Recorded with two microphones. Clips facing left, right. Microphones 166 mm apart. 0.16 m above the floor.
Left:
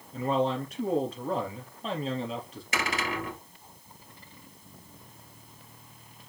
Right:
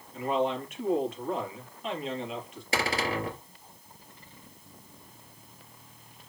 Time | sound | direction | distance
0.1 | a man speaking | 35° left (ahead or behind) | 4 m
2.7 | a cupboard door | 35° right (ahead or behind) | 2.5 m